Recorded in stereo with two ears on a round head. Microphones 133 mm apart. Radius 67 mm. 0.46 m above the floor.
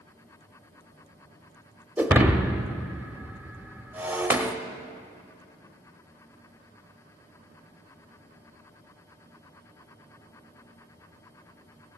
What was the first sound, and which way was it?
Breaking glass, 10° right (ahead or behind).